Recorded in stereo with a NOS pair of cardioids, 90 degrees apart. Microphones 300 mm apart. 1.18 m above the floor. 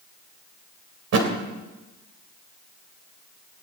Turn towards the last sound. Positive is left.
turn(degrees=-55)